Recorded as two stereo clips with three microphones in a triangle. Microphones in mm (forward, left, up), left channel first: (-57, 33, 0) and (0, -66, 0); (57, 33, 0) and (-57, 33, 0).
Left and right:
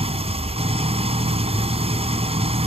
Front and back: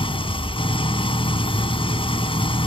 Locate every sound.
0.0 s an engine running: 35° right